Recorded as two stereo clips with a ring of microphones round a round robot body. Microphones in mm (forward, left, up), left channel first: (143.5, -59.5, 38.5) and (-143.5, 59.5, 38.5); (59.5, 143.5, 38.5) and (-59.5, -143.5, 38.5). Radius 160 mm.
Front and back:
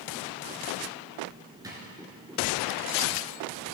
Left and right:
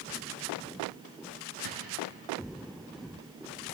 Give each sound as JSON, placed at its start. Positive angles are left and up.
{"t": 1.6, "sound": "a drawer", "azimuth_deg": -125, "distance_m": 2.5}